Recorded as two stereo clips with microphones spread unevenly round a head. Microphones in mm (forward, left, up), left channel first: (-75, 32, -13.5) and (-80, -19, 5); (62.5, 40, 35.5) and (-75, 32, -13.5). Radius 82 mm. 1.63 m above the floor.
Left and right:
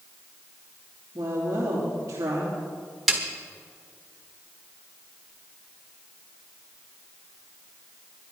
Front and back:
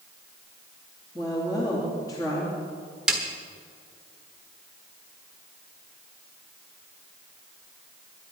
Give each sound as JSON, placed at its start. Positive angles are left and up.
{"t": 1.1, "sound": "a woman speaking", "azimuth_deg": -65, "distance_m": 2.5}
{"t": 3.1, "sound": "a snare drum", "azimuth_deg": -55, "distance_m": 1.3}